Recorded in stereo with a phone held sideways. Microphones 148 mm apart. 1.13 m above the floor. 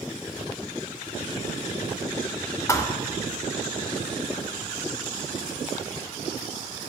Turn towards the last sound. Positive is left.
turn(degrees=20)  # may be behind; listen again after turning